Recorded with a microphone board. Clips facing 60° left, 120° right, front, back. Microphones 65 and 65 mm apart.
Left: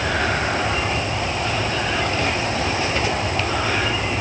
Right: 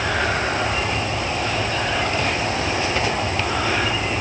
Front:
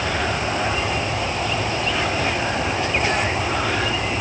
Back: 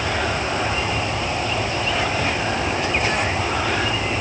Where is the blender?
No blender in this recording.